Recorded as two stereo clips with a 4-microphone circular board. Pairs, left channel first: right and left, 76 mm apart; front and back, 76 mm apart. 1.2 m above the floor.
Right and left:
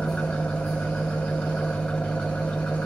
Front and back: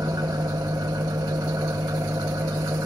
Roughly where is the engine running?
Behind.